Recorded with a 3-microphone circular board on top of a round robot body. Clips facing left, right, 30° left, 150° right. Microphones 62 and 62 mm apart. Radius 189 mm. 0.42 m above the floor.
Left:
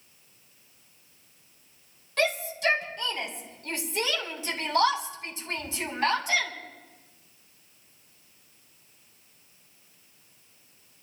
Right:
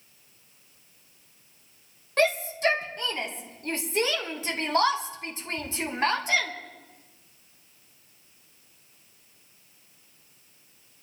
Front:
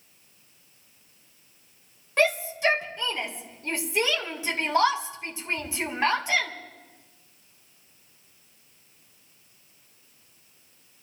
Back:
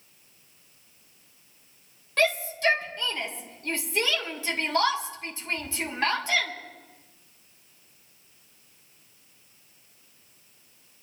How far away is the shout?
About 3.5 m.